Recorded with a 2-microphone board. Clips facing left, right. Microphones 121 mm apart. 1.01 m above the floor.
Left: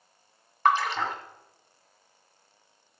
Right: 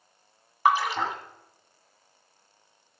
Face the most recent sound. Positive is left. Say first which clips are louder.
# right 1 dB
turn(degrees=-10)  # may be behind; listen again after turning